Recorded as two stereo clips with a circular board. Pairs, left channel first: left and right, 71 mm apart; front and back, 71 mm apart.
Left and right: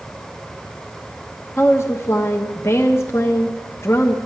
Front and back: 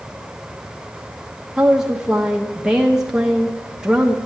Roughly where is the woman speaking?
Left.